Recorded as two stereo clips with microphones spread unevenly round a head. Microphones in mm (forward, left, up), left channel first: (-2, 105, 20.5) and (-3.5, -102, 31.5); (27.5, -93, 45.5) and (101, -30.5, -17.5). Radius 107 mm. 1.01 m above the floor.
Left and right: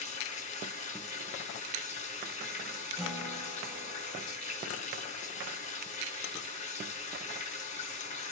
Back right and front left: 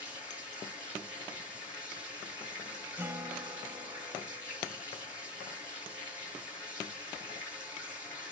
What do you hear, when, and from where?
0.0 s running water: 150° left, 3.5 m
3.0 s a guitar: straight ahead, 1.4 m